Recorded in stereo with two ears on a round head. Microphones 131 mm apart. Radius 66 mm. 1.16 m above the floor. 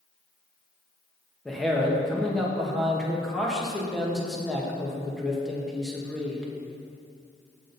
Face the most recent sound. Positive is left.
turn(degrees=0)  # may be behind; listen again after turning